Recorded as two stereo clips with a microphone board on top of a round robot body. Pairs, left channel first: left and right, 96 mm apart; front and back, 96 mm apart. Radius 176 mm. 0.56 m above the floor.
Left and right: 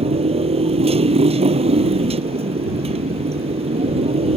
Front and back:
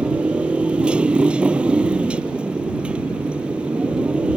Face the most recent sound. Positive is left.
turn(degrees=-100)